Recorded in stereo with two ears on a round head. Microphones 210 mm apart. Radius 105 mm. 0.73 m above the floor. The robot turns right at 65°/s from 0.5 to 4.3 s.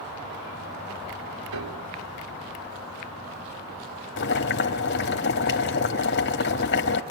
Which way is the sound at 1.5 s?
65° right (ahead or behind).